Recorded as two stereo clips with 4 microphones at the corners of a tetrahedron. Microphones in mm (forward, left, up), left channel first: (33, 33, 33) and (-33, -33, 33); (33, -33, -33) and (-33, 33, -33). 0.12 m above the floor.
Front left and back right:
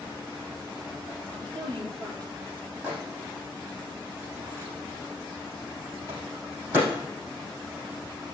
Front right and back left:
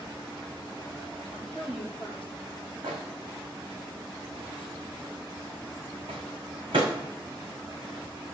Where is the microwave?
165° left, 5 m.